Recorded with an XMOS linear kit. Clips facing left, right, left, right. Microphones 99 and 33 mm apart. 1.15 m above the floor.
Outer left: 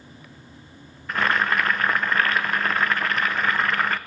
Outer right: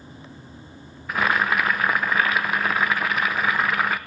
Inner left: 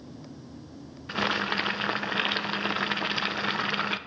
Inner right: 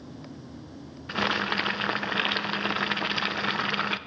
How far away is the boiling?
About 0.6 m.